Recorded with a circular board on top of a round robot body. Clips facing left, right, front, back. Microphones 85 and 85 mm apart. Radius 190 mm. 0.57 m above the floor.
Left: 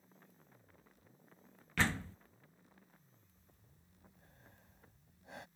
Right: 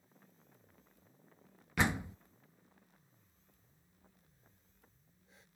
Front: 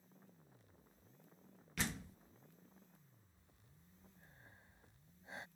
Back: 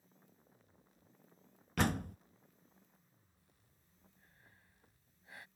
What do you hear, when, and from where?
1.8 s a door slam: 160° right
3.4 s breathing: 70° left